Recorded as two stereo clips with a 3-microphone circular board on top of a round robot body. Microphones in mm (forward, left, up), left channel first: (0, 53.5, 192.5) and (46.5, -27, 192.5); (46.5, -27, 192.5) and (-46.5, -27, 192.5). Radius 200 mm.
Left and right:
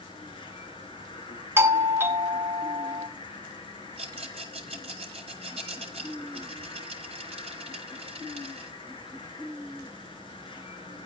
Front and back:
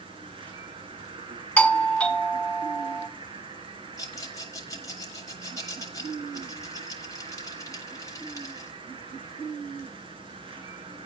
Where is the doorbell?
60° right, 1.4 m.